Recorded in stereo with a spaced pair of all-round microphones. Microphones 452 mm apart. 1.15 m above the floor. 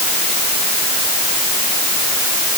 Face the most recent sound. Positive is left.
No sound to turn to.